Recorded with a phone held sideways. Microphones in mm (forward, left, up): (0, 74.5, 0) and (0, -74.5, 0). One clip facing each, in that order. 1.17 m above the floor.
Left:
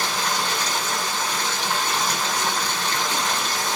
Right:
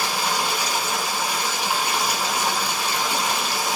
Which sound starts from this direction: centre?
Running water, at 0.0 s.